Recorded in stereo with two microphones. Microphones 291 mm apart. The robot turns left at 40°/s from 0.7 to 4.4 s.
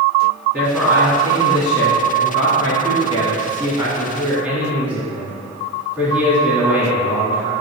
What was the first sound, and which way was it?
A man speaking, 5° right (ahead or behind).